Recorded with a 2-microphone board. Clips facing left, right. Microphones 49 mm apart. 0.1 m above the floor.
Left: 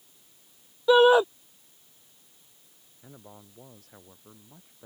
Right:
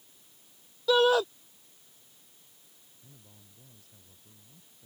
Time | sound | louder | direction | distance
0.9 | a shout | left 5 dB | 25° left (ahead or behind) | ?
3.0 | a man speaking | left 11 dB | 55° left (ahead or behind) | ?